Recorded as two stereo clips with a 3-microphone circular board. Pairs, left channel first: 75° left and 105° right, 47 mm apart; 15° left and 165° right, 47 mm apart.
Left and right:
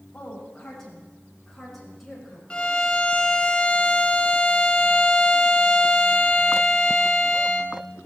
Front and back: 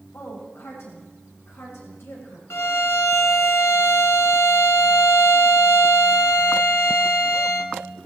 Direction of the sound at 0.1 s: Straight ahead.